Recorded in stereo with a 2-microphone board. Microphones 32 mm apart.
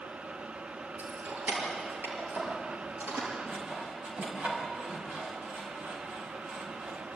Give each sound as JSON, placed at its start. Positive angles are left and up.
{"t": 1.0, "sound": "keys jangling", "side_deg": -85, "distance_m": 6.5}
{"t": 3.5, "sound": "sawing", "side_deg": -45, "distance_m": 4.5}